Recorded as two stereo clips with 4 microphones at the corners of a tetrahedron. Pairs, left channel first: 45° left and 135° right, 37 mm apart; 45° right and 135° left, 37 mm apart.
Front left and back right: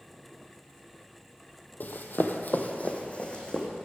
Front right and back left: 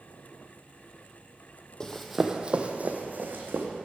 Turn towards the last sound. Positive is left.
turn(degrees=110)